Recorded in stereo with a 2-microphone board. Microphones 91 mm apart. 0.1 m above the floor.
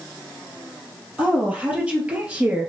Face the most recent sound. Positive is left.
turn(degrees=-15)  # may be behind; listen again after turning